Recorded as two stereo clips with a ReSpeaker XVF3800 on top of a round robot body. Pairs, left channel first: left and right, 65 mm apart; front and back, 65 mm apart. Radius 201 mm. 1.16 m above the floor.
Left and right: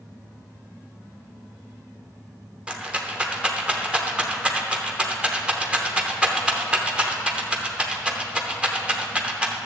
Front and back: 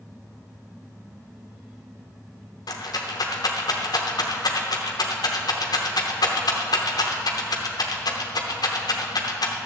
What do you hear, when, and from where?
2.7 s a rattle: 15° right, 0.7 m